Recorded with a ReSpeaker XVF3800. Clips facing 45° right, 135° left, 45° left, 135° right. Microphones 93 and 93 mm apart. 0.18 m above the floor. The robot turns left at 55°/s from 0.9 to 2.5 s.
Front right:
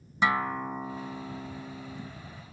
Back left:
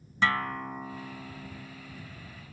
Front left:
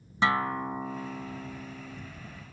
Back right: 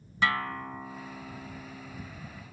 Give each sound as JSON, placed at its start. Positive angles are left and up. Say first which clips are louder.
{"t": 0.2, "sound": "a guitar", "louder": "front right 2 dB, front left 3 dB", "azimuth_deg": 10}